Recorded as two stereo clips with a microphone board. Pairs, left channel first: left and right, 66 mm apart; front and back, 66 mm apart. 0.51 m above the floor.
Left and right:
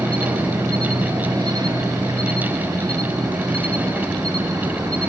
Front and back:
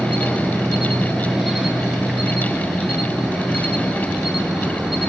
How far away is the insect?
About 6.5 m.